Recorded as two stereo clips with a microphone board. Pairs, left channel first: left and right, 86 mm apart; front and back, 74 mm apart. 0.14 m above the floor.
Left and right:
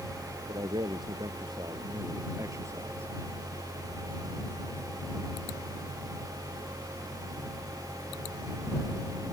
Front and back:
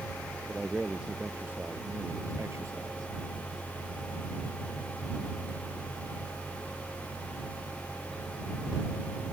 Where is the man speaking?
95° right; by 3.1 s 150° right.